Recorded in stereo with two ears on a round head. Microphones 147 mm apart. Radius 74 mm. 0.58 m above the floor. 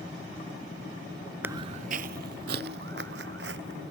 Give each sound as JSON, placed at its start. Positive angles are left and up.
{"t": 1.4, "sound": "footsteps", "side_deg": -10}